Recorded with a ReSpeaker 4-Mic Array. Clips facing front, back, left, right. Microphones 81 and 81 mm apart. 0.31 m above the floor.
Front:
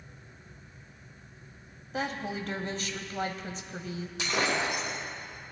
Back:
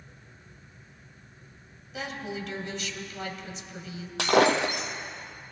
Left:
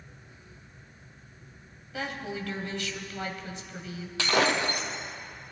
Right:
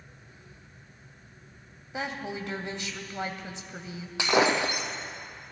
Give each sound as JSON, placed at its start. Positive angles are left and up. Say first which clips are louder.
{"t": 1.9, "sound": "a woman speaking", "louder": "front 2 dB, right 1 dB", "azimuth_deg": -30, "distance_m": 1.3}
{"t": 4.2, "sound": "breaking glass", "louder": "back 8 dB, right 2 dB", "azimuth_deg": -165, "distance_m": 1.0}